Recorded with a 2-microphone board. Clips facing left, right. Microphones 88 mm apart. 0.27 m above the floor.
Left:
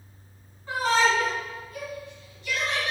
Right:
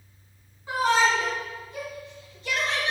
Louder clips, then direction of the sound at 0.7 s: Right 1 dB; 15° right (ahead or behind).